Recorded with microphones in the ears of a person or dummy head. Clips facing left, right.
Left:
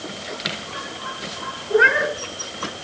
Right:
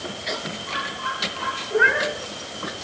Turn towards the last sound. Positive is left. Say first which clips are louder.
# left 4 dB
turn(degrees=45)  # may be behind; listen again after turning